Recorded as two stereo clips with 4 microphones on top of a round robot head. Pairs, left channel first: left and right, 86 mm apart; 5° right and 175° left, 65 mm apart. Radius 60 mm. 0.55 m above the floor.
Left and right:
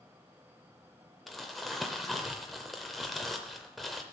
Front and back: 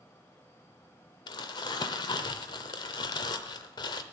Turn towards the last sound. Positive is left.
turn(degrees=0)